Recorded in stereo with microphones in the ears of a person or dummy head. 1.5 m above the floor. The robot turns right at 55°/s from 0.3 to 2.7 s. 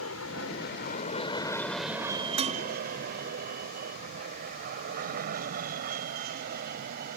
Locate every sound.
0.0 s an aircraft: 75° left (ahead or behind); by 7.2 s 50° right (ahead or behind)
2.4 s dishes clattering: 25° right (ahead or behind); by 2.6 s 40° right (ahead or behind)